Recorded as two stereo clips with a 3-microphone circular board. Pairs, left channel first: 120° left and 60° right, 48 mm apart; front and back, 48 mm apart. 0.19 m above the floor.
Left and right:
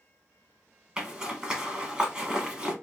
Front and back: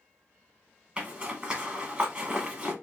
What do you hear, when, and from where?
1.0 s a zipper: 125° right, 0.9 m